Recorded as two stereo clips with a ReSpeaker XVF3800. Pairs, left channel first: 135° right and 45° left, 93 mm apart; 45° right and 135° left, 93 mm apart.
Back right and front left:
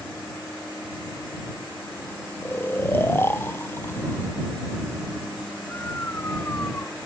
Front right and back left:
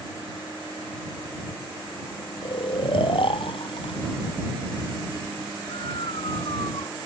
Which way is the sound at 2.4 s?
70° right.